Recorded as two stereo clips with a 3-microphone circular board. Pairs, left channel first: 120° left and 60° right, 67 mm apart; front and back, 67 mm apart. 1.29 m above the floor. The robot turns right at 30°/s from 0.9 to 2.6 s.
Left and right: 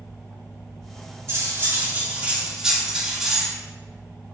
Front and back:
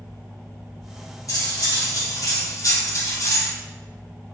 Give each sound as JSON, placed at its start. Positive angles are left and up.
{"t": 1.3, "sound": "cutlery clinking", "azimuth_deg": -20, "distance_m": 1.6}